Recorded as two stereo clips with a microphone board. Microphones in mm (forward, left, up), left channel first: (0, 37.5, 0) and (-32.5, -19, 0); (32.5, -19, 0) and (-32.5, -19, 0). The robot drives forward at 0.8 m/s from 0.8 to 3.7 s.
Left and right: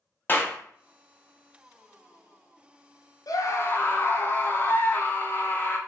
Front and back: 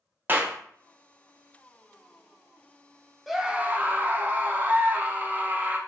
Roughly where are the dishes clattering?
I don't hear dishes clattering.